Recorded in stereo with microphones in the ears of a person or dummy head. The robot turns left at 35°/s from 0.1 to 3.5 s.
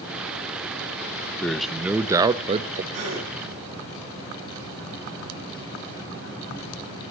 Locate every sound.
1.4 s a man speaking: 5° left, 0.8 m; by 2.8 s 40° right, 0.8 m
2.9 s a gasp: 45° right (ahead or behind), 4.5 m; by 3.3 s 30° right (ahead or behind), 4.5 m